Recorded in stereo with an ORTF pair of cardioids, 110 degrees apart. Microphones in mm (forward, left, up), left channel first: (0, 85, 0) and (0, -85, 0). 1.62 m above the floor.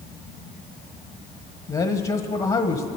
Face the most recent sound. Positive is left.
turn(degrees=30)